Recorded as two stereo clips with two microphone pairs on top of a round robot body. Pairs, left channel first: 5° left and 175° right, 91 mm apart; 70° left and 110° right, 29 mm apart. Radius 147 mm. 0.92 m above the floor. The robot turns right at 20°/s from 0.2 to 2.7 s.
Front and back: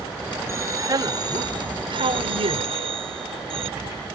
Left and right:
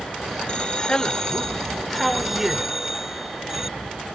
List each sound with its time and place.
0.5 s a man speaking: 125° left; by 3.7 s 170° left